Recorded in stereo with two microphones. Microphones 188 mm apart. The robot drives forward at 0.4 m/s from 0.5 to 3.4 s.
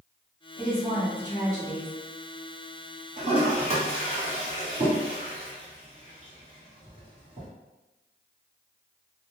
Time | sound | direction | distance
0.6 | a woman speaking | 20° right (ahead or behind) | 1.6 m
3.2 | a toilet flushing | 40° right (ahead or behind) | 1.3 m